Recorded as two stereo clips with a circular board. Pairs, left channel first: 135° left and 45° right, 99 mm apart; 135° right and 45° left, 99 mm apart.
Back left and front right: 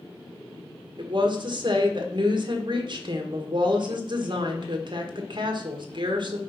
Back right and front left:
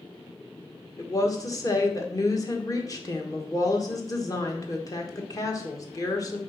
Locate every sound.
1.0 s a woman speaking: 80° right, 1.3 m